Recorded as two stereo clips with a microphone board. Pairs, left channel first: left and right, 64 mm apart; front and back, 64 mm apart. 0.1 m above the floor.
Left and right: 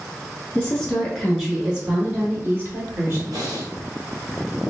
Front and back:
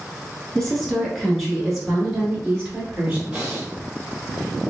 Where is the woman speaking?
70° left, 1.1 m; by 3.2 s 110° right, 1.6 m.